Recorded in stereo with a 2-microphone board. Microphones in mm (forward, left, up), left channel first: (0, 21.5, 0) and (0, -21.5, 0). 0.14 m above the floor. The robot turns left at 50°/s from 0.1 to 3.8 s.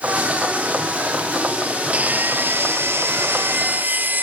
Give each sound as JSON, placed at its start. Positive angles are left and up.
{"t": 1.9, "sound": "sawing", "azimuth_deg": -35, "distance_m": 2.0}